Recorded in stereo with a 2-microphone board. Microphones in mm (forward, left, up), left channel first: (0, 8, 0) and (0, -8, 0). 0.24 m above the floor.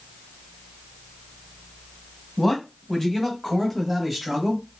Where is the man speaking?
25° left (ahead or behind), 1.2 m; by 4.7 s 10° right (ahead or behind), 1.0 m.